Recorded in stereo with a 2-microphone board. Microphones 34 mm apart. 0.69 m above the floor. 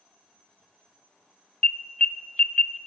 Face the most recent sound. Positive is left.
turn(degrees=35)  # may be behind; listen again after turning